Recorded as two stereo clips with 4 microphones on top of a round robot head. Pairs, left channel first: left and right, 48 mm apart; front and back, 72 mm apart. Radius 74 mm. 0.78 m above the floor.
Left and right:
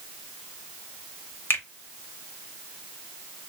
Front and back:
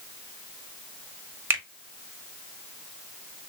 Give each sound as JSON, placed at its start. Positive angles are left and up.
{"t": 1.5, "sound": "a finger snap", "azimuth_deg": 125, "distance_m": 1.7}